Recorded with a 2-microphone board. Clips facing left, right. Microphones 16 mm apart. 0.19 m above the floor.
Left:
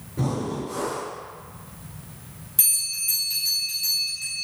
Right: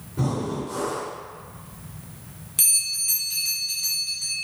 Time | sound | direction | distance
0.2 | breathing | 20° right (ahead or behind) | 1.7 m
2.6 | a bell | 30° right (ahead or behind) | 1.2 m